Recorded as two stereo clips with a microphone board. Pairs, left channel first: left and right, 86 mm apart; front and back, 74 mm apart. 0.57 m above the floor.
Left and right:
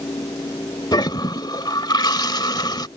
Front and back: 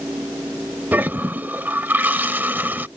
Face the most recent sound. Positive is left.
turn(degrees=120)